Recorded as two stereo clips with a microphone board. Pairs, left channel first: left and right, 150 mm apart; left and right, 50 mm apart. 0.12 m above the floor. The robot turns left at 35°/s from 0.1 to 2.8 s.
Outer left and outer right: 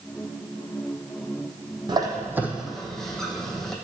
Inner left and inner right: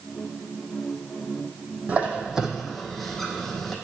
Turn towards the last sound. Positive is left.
turn(degrees=0)  # may be behind; listen again after turning